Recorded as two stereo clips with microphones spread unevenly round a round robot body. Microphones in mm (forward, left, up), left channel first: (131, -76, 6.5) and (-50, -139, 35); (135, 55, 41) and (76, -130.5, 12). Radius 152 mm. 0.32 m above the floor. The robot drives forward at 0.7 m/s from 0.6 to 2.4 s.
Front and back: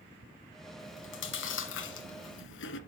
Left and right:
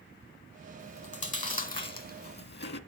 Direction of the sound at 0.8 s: 15° left.